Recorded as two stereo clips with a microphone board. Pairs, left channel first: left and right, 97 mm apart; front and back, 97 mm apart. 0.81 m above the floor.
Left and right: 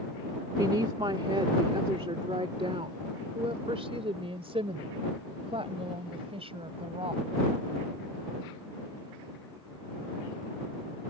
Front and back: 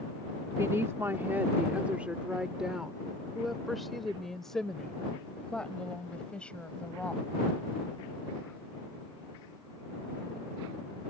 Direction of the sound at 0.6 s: 125° right.